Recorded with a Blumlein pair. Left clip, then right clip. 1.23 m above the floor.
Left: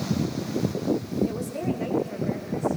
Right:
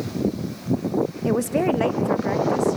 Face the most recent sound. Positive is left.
turn(degrees=-40)